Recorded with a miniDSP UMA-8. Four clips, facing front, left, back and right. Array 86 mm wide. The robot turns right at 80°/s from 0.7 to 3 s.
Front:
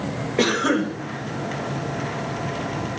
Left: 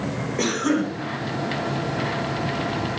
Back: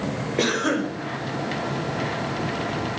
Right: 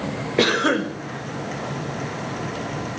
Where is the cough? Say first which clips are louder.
Right 3 dB, front 3 dB; 85° right, 1.0 m; by 0.9 s 65° right, 1.0 m.